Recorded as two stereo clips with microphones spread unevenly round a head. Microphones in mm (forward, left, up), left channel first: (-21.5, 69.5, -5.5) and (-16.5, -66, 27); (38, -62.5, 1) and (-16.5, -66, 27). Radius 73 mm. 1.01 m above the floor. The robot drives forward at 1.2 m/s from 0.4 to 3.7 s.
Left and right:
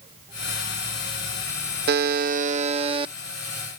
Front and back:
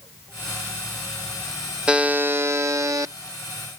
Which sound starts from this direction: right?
A buzzer, at 1.9 s.